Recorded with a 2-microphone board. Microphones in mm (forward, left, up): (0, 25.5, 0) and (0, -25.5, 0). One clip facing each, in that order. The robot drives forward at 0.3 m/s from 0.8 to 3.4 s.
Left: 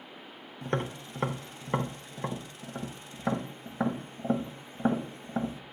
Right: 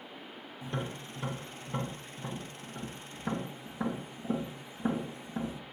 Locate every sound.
0.6 s tapping: 55° left (ahead or behind), 0.7 m; by 5.6 s 40° left (ahead or behind), 0.9 m